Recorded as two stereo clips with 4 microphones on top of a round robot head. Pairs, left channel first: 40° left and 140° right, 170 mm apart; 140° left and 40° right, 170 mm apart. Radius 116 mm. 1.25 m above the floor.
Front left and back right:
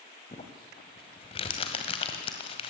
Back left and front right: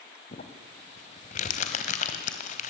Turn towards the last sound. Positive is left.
turn(degrees=95)